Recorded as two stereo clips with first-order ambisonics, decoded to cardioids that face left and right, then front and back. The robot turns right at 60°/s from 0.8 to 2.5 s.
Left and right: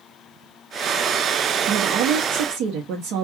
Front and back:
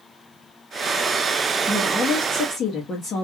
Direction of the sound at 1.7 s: 115° right.